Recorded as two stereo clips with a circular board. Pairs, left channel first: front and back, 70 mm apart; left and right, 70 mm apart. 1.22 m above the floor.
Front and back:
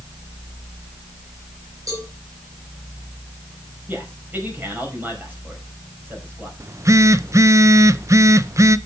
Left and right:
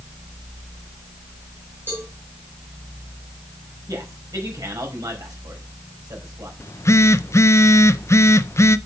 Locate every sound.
1.9 s a cowbell: 145° right, 5.5 m
3.9 s a man speaking: 120° right, 5 m
6.6 s a phone buzzing: 135° left, 0.5 m